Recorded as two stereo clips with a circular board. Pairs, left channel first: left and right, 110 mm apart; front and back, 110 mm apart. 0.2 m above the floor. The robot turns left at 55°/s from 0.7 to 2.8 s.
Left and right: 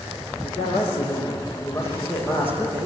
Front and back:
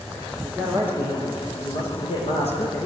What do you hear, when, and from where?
0.4 s a man speaking: 80° left, 9 m; by 2.9 s 35° right, 9 m